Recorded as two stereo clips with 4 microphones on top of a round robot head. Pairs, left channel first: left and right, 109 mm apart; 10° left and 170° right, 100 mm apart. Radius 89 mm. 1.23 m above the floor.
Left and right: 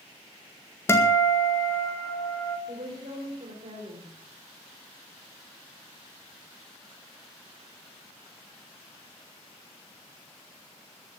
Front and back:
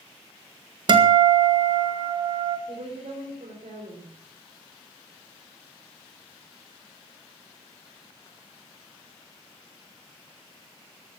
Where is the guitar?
155° left, 1.8 m.